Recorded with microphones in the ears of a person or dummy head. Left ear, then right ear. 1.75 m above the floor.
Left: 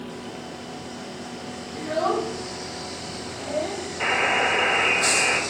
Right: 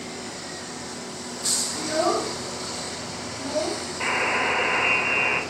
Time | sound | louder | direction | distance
1.7 | a child speaking | left 2 dB | 20° left (ahead or behind) | 0.9 m
4.0 | a buzzer | left 2 dB | 15° left (ahead or behind) | 1.0 m